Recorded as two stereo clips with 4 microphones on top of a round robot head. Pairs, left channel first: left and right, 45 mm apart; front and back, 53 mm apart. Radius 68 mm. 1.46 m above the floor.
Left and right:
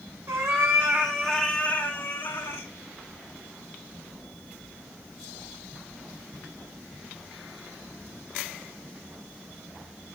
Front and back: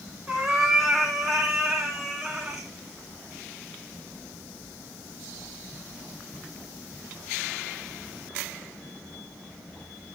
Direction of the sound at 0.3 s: 90° right.